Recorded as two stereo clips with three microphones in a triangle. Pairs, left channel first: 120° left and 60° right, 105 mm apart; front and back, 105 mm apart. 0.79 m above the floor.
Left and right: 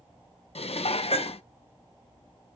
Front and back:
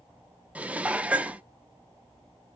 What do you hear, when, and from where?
0.6 s dishes clattering: 105° left, 0.7 m